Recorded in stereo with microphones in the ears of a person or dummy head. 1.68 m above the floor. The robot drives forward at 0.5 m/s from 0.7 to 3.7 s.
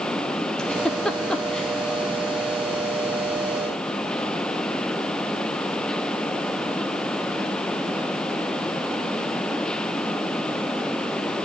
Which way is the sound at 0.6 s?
Centre (ahead or behind).